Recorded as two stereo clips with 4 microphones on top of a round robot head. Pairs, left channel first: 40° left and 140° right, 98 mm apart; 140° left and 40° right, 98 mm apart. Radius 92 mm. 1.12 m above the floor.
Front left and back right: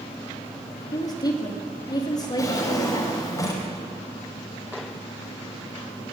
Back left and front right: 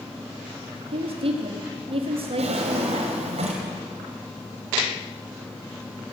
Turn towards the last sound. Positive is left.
turn(degrees=-15)